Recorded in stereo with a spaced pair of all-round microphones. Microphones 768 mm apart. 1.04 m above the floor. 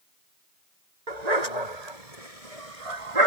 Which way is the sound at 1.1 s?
60° right (ahead or behind).